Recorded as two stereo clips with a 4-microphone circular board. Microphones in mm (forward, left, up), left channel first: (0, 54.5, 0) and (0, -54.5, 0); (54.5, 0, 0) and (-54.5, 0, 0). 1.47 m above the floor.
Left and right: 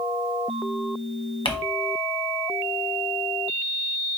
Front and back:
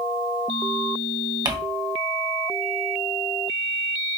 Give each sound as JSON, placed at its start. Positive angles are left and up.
{"t": 1.4, "sound": "crumpling", "azimuth_deg": 130, "distance_m": 0.9}